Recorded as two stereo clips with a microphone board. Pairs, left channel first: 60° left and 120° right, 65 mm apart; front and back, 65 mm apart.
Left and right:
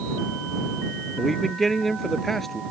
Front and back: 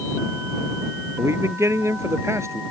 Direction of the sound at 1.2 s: 145° left.